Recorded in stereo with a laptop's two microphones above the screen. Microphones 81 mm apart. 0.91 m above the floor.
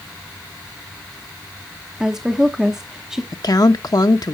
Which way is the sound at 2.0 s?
5° right (ahead or behind).